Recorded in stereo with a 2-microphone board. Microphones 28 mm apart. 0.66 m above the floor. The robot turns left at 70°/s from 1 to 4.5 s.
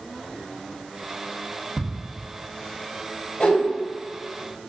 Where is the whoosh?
65° left (ahead or behind), 1.9 m; by 3.6 s 75° left (ahead or behind), 1.9 m.